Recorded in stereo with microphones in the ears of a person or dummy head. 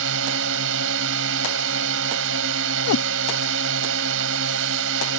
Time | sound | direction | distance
0.0 | a drone | 70° right (ahead or behind) | ?
2.9 | a cat meowing | 85° left | ?